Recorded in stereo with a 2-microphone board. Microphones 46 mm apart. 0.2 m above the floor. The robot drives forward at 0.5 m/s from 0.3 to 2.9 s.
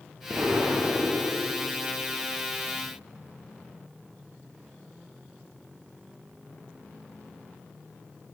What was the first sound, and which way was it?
An explosion, 30° right (ahead or behind).